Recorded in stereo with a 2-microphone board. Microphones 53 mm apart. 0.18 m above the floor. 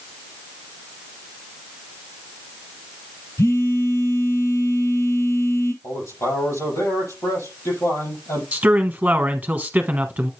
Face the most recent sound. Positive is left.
turn(degrees=-25)  # may be behind; listen again after turning